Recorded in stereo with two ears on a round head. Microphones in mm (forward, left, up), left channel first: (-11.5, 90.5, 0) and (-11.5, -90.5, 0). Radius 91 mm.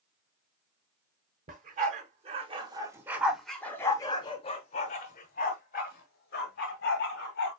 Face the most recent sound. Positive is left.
turn(degrees=50)  # may be behind; listen again after turning